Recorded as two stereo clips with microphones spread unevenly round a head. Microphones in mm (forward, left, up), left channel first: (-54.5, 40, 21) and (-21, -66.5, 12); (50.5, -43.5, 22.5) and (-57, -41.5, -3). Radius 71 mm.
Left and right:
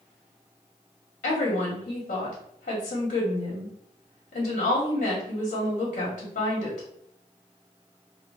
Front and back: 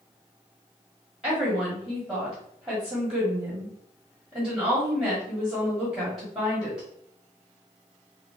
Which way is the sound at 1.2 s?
90° left.